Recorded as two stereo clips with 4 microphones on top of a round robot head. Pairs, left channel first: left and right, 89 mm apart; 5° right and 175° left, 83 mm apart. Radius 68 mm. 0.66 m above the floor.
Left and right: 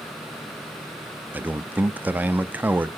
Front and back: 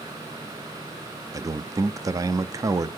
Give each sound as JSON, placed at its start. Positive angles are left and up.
{"t": 1.3, "sound": "a man speaking", "azimuth_deg": -155, "distance_m": 0.8}